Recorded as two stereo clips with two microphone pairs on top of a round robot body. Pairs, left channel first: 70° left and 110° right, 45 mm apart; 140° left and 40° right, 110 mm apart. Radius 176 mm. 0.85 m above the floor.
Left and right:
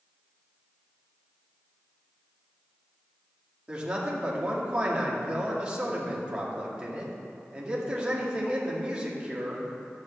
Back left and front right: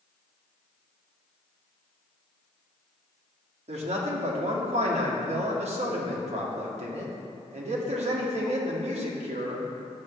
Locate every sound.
3.7 s a man speaking: 45° right, 2 m